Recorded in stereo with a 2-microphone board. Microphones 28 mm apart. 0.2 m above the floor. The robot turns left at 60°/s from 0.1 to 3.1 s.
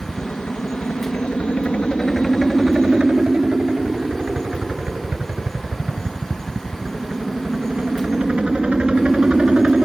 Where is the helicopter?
35° left (ahead or behind); by 9.9 s 40° right (ahead or behind).